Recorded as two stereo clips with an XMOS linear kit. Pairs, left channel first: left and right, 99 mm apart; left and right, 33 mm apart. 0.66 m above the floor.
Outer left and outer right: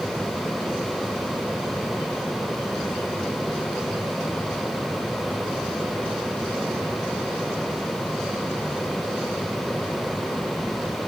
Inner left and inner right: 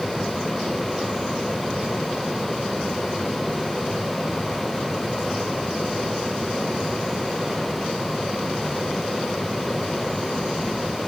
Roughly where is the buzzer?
No buzzer in this recording.